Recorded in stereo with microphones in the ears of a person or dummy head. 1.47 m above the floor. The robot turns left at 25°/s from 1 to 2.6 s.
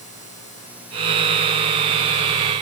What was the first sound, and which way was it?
Only background noise.